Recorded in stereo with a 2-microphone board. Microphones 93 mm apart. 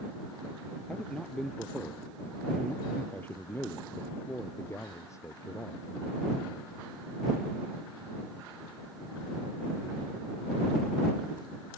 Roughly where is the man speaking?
Centre.